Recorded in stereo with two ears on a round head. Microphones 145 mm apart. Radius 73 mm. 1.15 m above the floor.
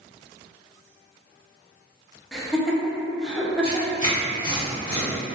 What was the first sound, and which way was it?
Laughter, centre (ahead or behind).